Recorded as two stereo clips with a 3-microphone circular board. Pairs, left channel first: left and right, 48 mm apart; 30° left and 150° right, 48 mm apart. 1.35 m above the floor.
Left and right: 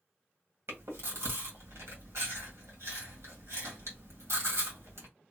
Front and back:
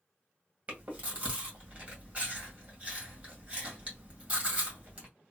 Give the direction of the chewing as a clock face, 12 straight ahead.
3 o'clock.